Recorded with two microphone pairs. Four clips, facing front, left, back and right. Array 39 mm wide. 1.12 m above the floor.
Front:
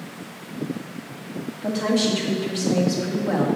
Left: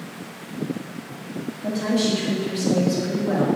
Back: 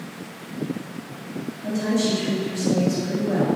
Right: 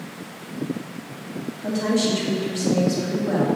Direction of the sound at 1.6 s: Straight ahead.